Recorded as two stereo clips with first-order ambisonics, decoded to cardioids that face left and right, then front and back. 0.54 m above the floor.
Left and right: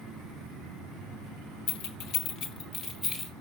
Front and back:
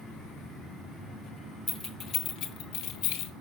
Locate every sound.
1.7 s keys jangling: 90° left, 0.8 m; by 3.3 s 10° left, 1.3 m